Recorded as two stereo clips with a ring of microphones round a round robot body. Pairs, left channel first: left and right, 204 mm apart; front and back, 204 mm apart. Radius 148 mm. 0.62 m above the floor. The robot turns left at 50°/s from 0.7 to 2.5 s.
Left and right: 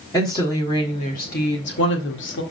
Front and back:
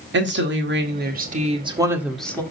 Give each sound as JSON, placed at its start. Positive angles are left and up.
{"t": 0.1, "sound": "a woman speaking", "azimuth_deg": 165, "distance_m": 1.9}